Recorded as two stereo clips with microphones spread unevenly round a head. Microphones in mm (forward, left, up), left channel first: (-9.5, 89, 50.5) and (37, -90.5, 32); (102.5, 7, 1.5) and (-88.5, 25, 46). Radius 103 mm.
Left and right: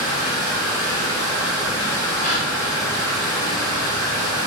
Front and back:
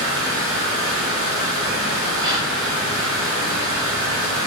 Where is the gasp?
125° left, 0.5 m.